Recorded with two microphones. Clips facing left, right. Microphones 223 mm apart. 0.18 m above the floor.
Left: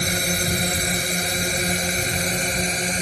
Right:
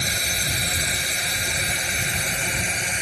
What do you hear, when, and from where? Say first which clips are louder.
0.0 s a drone: left 7 dB; 55° left (ahead or behind); by 3.0 s 40° left (ahead or behind)